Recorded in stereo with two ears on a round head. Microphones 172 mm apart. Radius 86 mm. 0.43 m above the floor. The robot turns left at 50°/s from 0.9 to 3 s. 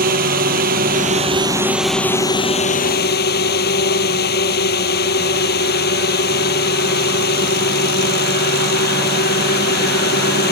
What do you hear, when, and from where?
0.0 s a drone: 130° right; by 10.5 s 125° left